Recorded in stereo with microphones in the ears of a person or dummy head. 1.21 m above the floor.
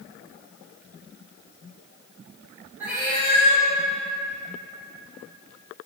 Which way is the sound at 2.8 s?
10° right (ahead or behind).